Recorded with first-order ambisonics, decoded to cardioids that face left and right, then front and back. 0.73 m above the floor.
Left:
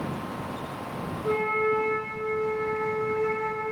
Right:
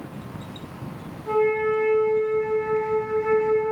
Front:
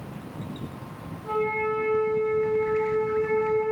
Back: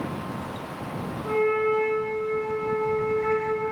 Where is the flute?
110° left, 1.7 m.